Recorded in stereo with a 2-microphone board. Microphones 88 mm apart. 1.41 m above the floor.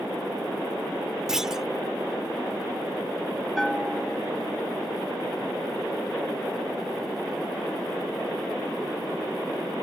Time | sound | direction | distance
1.3 | a clunk | 5° right (ahead or behind) | ?
3.6 | a bell | centre (ahead or behind) | ?